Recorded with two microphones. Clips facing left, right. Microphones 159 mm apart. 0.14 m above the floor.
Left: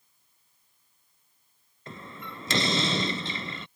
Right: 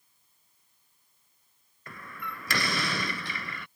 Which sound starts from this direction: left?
A door slam, at 1.9 s.